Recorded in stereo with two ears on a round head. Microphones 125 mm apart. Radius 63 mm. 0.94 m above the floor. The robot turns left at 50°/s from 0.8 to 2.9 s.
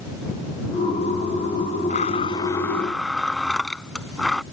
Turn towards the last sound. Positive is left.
turn(degrees=5)